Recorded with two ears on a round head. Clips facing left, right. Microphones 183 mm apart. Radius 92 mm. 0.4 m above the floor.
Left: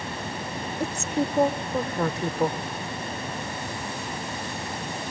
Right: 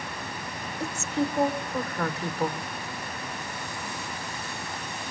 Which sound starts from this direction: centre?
A woman speaking, at 0.8 s.